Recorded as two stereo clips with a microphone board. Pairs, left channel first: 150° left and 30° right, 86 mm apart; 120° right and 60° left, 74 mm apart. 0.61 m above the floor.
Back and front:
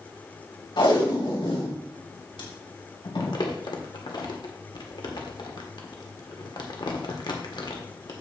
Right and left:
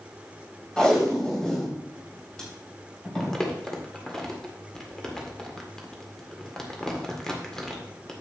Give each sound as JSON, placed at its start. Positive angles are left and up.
{"t": 0.8, "sound": "tape being pulled", "azimuth_deg": 160, "distance_m": 3.0}
{"t": 3.2, "sound": "crumpling", "azimuth_deg": 160, "distance_m": 1.7}